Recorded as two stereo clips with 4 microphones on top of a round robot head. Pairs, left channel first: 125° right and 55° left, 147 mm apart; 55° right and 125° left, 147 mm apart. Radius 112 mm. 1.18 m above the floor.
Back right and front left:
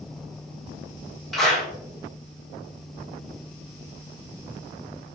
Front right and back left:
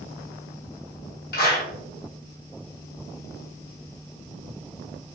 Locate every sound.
1.3 s a clap: 35° right, 1.2 m